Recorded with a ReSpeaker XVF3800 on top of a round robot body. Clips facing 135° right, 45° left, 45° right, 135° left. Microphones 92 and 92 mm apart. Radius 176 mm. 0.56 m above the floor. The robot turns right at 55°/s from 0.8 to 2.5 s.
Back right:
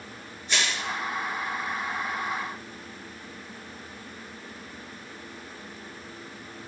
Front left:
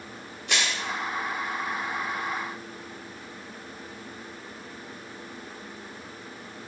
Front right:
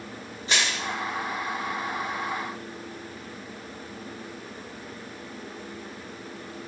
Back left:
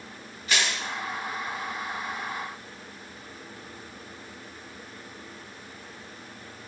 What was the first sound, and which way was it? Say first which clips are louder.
Crushing: even, even; 20° left.